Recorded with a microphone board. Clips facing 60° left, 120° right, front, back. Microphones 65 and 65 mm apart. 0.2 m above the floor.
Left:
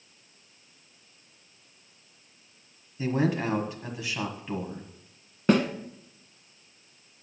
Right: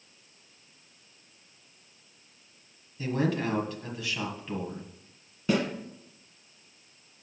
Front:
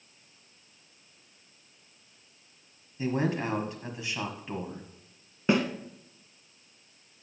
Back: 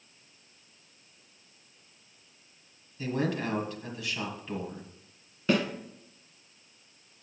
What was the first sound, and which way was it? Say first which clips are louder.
A man speaking: left 2 dB, front 2 dB; 25° left.